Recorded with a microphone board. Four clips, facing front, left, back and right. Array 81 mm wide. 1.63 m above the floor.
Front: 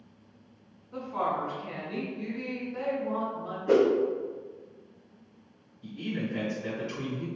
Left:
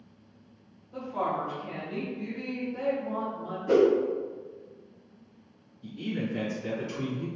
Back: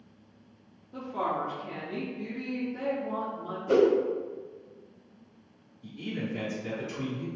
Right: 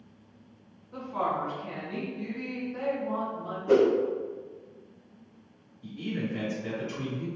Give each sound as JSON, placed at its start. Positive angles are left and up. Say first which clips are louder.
{"t": 0.9, "sound": "a woman speaking", "louder": "even, front 1 dB", "azimuth_deg": -40, "distance_m": 1.3}
{"t": 3.7, "sound": "a whoosh", "louder": "even, even", "azimuth_deg": 15, "distance_m": 1.8}
{"t": 5.8, "sound": "a man speaking", "louder": "even, front 2 dB", "azimuth_deg": 5, "distance_m": 1.9}